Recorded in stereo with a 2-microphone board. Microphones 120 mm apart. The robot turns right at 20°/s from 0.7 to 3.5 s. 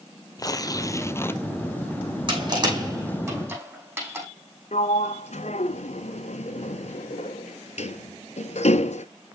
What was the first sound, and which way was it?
Tearing paper, 30° left (ahead or behind).